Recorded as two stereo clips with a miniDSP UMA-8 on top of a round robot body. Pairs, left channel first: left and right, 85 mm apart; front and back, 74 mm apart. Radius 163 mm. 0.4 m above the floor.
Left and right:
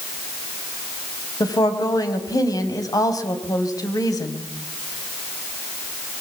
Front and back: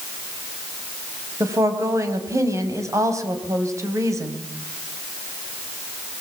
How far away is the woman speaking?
About 4 m.